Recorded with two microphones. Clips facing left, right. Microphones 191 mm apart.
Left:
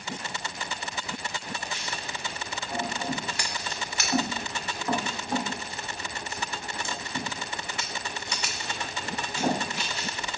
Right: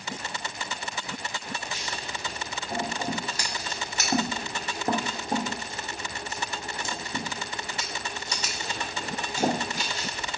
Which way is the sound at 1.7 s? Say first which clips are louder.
Right 1 dB; 40° right (ahead or behind).